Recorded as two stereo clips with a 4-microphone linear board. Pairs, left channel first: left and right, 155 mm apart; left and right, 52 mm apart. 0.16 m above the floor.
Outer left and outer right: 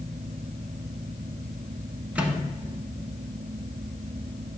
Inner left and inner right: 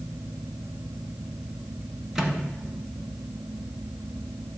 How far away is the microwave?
About 1.1 m.